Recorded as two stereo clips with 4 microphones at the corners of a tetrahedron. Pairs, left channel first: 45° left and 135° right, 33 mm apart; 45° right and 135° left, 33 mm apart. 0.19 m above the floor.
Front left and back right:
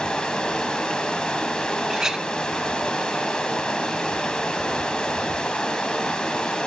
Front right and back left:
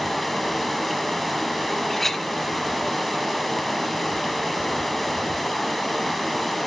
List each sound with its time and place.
0.0 s running water: 30° left, 1.2 m
1.9 s a clink: 100° right, 0.5 m